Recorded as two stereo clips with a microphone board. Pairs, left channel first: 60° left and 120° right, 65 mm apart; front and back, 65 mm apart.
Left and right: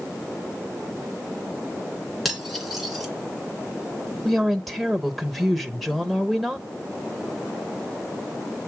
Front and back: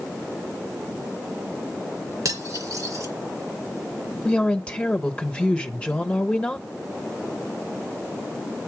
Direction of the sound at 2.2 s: 150° left.